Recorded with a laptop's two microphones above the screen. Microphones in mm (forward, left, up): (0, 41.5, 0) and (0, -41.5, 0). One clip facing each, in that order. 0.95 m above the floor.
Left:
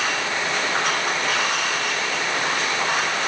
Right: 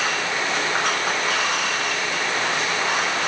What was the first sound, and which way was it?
Only background noise.